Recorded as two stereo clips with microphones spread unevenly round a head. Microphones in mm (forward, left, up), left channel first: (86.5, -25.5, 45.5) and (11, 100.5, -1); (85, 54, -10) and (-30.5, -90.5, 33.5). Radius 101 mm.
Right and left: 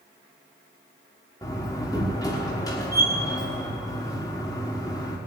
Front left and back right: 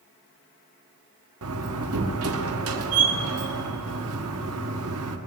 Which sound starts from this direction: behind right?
A door slam, at 1.4 s.